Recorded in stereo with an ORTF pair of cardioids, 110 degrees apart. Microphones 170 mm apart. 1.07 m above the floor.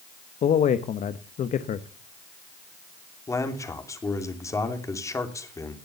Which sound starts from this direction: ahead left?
A man speaking, at 0.4 s.